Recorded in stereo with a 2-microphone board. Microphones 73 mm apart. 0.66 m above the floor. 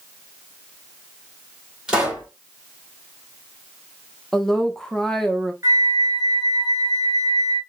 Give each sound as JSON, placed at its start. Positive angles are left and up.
{"t": 1.9, "sound": "a pop", "side_deg": -5, "distance_m": 2.5}
{"t": 4.3, "sound": "a woman speaking", "side_deg": 5, "distance_m": 0.6}
{"t": 5.6, "sound": "a flute", "side_deg": -40, "distance_m": 1.3}